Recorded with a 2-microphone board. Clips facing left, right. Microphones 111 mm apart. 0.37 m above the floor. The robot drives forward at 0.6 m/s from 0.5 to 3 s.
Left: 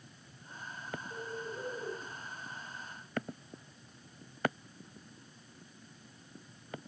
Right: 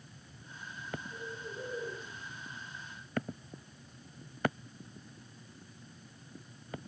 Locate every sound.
1.1 s a bird: 80° left, 6.5 m